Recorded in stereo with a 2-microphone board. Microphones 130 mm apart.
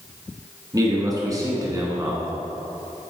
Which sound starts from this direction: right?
A man speaking, at 0.7 s.